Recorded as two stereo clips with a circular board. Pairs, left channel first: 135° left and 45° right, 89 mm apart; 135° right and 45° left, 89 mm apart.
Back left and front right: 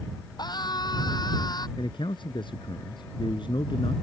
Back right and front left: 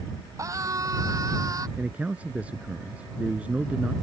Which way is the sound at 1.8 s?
120° left.